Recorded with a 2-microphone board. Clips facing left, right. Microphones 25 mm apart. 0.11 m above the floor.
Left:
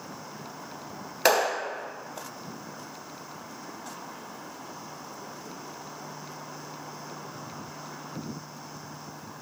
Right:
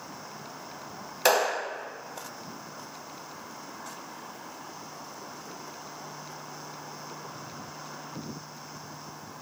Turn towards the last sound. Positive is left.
turn(degrees=20)  # may be behind; listen again after turning